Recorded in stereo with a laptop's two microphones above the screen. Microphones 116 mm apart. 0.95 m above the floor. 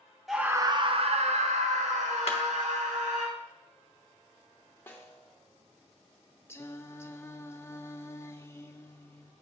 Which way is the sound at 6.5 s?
20° left (ahead or behind).